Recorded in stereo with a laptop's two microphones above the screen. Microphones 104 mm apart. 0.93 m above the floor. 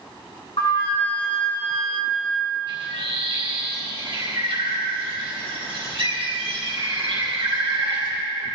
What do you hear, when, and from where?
0.6 s a flute: 75° left (ahead or behind), 3.5 m
2.7 s a bird: 60° right (ahead or behind), 4 m